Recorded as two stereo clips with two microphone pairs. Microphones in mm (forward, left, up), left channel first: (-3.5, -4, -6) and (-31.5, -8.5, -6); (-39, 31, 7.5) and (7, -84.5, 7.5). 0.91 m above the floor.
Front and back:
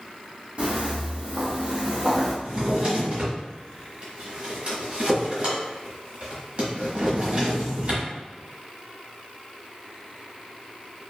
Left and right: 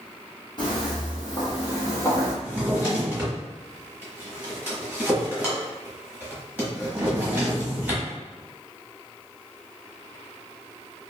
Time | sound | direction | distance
0.6 | footsteps | 160° left | 1.6 m
2.4 | a drawer | 145° right | 1.1 m